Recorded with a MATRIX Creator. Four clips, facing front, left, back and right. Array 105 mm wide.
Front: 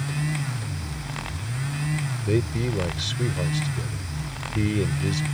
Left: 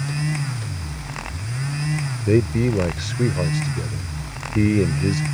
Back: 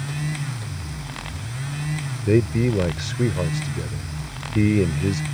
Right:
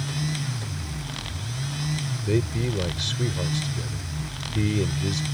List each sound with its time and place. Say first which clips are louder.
2.3 s a man speaking: left 7 dB, back 6 dB; 125° left